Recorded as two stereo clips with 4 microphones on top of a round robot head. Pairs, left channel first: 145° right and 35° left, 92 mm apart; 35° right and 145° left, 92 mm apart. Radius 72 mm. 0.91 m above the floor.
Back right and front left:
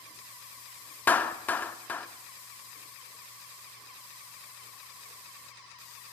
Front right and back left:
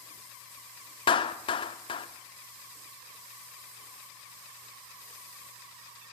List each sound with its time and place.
1.1 s a clap: 70° right, 1.7 m